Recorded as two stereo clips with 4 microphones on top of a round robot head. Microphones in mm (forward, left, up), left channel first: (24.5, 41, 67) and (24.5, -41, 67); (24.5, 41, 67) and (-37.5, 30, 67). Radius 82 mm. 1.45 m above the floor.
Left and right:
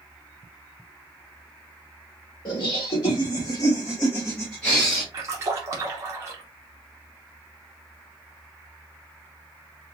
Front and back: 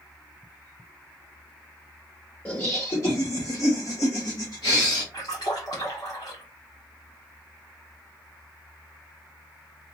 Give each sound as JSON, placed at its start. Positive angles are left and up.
{"t": 2.5, "sound": "laughter", "azimuth_deg": 70, "distance_m": 1.4}
{"t": 5.1, "sound": "a splash", "azimuth_deg": -45, "distance_m": 0.6}